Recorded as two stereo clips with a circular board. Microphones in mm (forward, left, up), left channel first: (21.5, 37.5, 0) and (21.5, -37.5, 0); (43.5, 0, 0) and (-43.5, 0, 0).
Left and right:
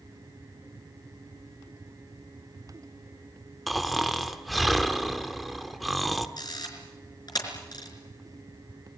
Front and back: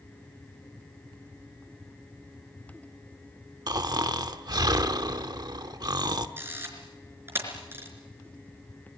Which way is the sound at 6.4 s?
115° left.